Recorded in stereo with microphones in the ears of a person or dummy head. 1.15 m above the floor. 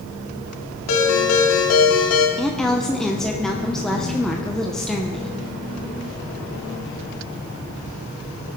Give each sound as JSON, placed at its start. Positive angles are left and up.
{"t": 0.9, "sound": "a ringtone", "side_deg": 90, "distance_m": 2.0}
{"t": 2.4, "sound": "a woman speaking", "side_deg": 0, "distance_m": 0.8}